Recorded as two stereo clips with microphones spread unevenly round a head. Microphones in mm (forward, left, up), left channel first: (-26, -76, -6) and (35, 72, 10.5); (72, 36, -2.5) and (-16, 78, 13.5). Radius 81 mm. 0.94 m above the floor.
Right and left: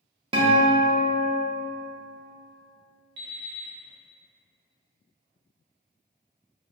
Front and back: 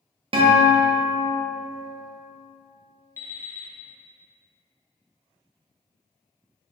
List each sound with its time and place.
0.3 s a guitar: 130° left, 0.6 m
3.2 s an alarm clock: 40° left, 0.7 m